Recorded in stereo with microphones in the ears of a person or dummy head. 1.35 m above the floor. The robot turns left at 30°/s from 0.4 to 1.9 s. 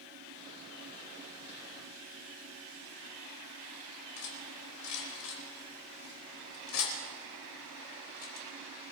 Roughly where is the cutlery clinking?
Left.